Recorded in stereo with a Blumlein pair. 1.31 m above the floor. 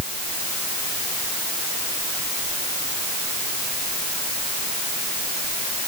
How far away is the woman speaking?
No woman speaking in this recording.